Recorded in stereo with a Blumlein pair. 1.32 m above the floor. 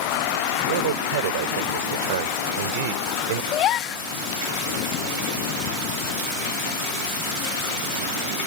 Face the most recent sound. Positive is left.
turn(degrees=30)